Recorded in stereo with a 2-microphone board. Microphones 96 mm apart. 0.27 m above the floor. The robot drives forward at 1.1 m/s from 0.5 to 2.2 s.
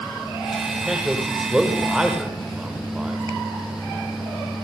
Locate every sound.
0.7 s a man speaking: 5° right (ahead or behind), 9.5 m